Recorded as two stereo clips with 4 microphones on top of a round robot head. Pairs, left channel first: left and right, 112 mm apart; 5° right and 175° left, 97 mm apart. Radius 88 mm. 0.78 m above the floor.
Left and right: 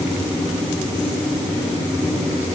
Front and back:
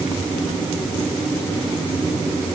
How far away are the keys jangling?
I don't hear keys jangling.